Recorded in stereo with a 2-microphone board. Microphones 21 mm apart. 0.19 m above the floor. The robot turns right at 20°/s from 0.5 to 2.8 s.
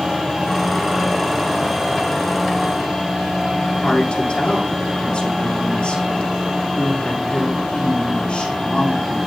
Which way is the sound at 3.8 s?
40° left (ahead or behind).